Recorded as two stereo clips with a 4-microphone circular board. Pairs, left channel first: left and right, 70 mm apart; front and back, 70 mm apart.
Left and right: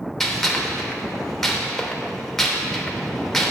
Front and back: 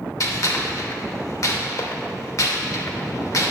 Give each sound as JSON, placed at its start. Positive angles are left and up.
{"t": 0.2, "sound": "a gunshot", "azimuth_deg": 5, "distance_m": 0.7}